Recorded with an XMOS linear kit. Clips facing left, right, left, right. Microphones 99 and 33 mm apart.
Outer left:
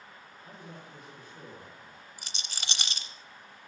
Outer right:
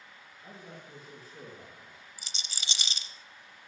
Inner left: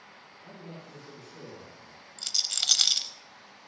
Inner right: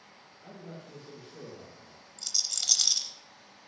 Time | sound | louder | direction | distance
0.4 | a man speaking | even, even | 35° right (ahead or behind) | 8.5 m
2.2 | a rattle | outer left 2 dB, inner left 4 dB | 60° left (ahead or behind) | 0.8 m